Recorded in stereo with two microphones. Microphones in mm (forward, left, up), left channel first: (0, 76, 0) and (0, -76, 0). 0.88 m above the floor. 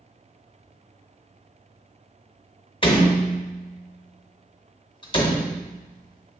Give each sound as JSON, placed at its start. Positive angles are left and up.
{"t": 2.8, "sound": "a door slam", "side_deg": 35, "distance_m": 0.9}